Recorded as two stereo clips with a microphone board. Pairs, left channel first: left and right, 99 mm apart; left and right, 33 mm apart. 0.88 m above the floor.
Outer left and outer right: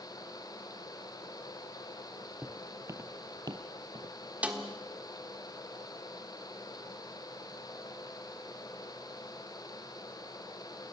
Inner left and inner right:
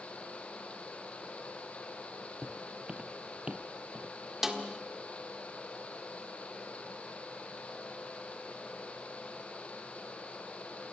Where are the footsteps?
15° right (ahead or behind), 1.3 m; by 4.2 s 45° right (ahead or behind), 1.4 m.